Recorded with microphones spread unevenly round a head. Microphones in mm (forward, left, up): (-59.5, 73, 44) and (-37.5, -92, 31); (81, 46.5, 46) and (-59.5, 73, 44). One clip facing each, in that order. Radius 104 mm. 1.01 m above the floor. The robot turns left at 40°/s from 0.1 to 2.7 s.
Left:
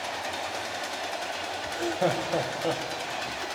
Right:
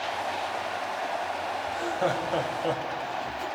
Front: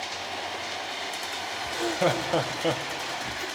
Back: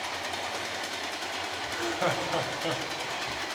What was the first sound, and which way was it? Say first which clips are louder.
Laughter: left 2 dB, front 5 dB; 45° left.